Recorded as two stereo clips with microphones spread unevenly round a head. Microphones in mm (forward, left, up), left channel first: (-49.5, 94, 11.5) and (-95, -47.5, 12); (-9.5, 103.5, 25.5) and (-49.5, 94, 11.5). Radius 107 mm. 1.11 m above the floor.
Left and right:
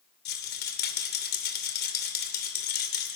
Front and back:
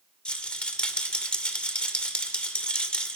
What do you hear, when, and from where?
0.2 s a rattle: 75° left, 2.5 m